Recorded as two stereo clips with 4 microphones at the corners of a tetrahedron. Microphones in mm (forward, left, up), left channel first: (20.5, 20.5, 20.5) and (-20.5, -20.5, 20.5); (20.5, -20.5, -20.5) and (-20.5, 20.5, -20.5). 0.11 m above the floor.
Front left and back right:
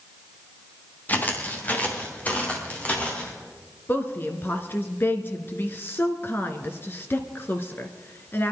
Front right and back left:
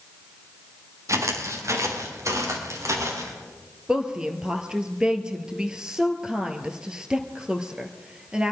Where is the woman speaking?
65° left, 1.5 m.